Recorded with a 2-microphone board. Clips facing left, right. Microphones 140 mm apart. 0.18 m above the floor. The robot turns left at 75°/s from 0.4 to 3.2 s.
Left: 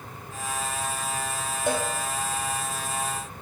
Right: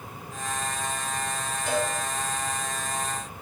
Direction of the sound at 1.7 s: 55° left (ahead or behind).